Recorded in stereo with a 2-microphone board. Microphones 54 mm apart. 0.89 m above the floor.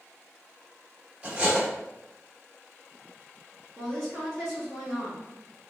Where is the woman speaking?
Centre (ahead or behind), 1.2 m.